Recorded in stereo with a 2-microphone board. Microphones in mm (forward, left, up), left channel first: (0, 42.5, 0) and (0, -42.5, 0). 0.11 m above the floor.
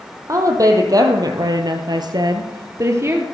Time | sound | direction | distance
0.3 | a woman speaking | 40° right (ahead or behind) | 3.5 m